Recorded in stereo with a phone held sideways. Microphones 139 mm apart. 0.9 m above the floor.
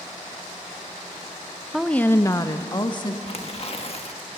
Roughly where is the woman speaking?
Centre.